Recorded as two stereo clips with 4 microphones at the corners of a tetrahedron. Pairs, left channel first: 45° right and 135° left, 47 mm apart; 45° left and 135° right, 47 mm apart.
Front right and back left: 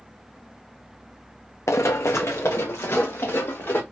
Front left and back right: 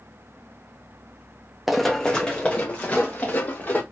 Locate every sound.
1.7 s running footsteps: 50° right, 0.5 m; by 3.8 s 10° right, 1.8 m